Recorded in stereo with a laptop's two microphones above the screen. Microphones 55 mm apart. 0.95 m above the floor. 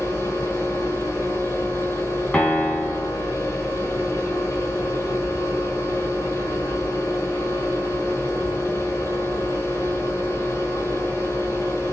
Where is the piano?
30° left (ahead or behind), 1.1 m.